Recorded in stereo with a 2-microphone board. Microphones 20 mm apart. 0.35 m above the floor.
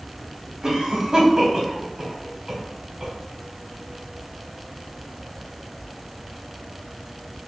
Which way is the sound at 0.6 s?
40° right (ahead or behind).